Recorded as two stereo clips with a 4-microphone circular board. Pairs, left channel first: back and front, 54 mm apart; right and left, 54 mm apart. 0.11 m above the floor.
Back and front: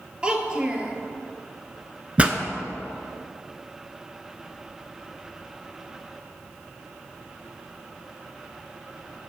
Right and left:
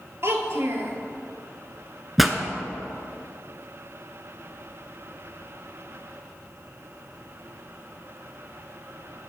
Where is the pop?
5° left, 0.5 m.